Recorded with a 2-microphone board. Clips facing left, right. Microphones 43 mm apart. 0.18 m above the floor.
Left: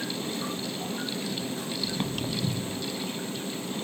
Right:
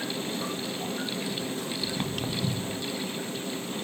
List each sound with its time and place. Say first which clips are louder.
1.8 s footsteps: left 1 dB; 40° right (ahead or behind), 2.5 m